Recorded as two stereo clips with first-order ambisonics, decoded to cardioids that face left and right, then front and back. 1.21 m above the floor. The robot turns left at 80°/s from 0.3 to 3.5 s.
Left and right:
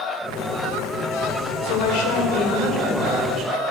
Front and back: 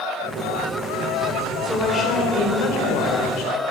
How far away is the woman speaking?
About 4.5 m.